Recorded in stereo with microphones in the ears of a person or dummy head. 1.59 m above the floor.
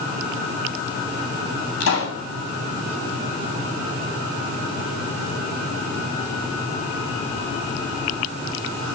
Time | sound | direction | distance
1.8 | a pop | 80° left | 8.5 m